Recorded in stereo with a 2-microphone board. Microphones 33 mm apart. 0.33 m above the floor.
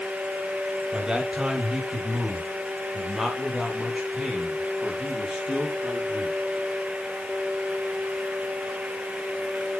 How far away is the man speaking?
About 1.6 m.